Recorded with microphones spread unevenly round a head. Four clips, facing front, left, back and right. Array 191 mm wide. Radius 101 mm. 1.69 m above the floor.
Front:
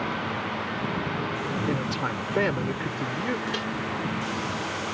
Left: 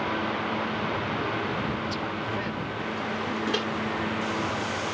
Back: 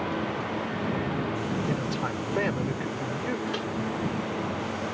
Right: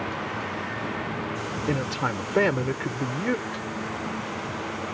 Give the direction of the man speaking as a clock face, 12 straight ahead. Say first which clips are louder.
Right 3 dB, front 1 dB; 2 o'clock.